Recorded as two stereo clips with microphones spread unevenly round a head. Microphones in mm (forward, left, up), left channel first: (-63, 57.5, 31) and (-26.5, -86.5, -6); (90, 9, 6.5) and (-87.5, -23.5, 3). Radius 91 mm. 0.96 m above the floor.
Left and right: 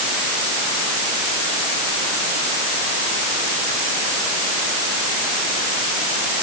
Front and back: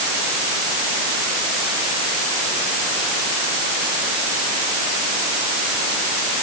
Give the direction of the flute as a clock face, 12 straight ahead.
No flute in this recording.